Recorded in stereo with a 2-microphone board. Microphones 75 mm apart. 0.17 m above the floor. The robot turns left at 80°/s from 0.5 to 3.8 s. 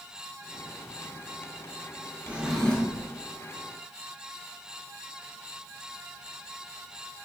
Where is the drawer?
155° right, 0.7 m; by 3.1 s 140° left, 0.7 m.